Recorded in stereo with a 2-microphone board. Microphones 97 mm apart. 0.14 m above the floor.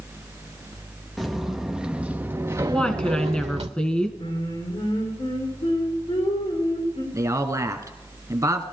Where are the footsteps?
Centre (ahead or behind), 1.9 m; by 3.7 s 80° right, 0.9 m.